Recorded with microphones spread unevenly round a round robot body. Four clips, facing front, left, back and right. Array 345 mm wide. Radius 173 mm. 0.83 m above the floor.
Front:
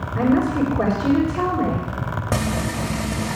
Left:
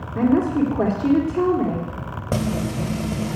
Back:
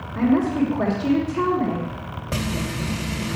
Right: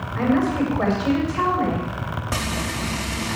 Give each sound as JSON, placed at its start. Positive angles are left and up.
{"t": 0.1, "sound": "a woman speaking", "azimuth_deg": 80, "distance_m": 3.0}
{"t": 2.3, "sound": "frying", "azimuth_deg": 35, "distance_m": 1.6}